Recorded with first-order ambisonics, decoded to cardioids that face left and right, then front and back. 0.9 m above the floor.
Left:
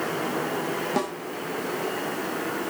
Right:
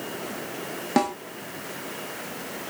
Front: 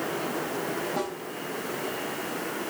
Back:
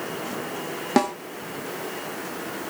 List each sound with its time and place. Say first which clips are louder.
1.0 s a snare drum: right 8 dB, back 9 dB; 160° right, 1.8 m